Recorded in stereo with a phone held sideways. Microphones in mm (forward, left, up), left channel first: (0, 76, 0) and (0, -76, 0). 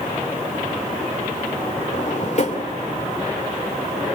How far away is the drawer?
About 2.5 m.